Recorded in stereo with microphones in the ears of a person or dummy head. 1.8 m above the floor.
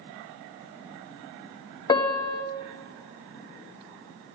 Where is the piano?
25° left (ahead or behind), 0.5 m.